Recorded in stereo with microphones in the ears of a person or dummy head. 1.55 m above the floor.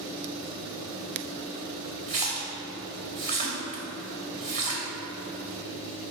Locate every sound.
2.1 s a splash: 45° right (ahead or behind), 2 m